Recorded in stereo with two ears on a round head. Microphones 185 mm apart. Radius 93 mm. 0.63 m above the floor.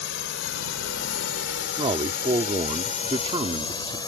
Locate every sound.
0.0 s a drone: 60° left (ahead or behind); by 4.1 s 20° left (ahead or behind)
1.8 s a man speaking: 25° right (ahead or behind)